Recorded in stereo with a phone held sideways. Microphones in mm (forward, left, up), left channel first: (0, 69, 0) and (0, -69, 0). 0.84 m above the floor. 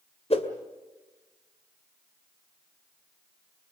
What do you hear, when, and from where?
0.3 s a whoosh: 45° left (ahead or behind), 1.9 m